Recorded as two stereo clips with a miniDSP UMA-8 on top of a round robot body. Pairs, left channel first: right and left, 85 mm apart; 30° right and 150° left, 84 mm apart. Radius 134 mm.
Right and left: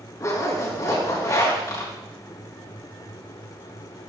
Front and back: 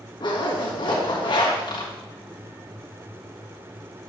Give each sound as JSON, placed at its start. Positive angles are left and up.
{"t": 0.2, "sound": "a zipper", "azimuth_deg": -40, "distance_m": 4.5}